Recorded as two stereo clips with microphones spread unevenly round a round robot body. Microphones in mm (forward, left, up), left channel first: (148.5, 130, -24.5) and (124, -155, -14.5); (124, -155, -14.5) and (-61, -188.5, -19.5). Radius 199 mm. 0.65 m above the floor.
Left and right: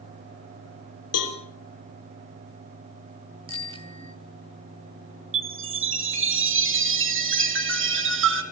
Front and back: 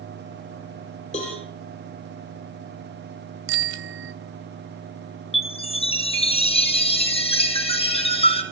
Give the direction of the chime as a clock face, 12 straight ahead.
2 o'clock.